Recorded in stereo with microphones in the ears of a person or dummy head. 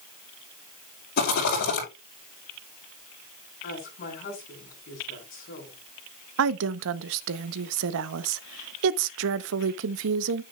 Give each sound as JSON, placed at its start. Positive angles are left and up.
{"t": 1.2, "sound": "a rattle", "side_deg": 60, "distance_m": 6.0}
{"t": 3.6, "sound": "a woman speaking", "side_deg": 45, "distance_m": 5.5}
{"t": 6.4, "sound": "a woman speaking", "side_deg": -80, "distance_m": 0.7}